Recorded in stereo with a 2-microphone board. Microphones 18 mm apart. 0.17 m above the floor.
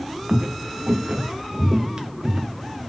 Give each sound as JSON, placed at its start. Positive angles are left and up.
{"t": 0.3, "sound": "footsteps", "side_deg": -55, "distance_m": 0.7}